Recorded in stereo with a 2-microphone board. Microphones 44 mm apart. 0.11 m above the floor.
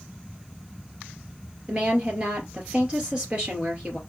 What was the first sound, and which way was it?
A woman speaking, 20° right (ahead or behind).